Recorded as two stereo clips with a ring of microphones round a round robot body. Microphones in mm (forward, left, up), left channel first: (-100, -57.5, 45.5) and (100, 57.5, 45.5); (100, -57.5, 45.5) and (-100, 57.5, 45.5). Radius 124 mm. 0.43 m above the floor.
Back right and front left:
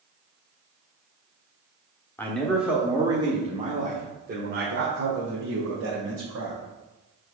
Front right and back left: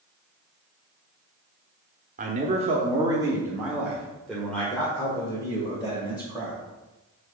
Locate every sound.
2.2 s a man speaking: 135° left, 1.3 m; by 6.6 s 40° left, 2.5 m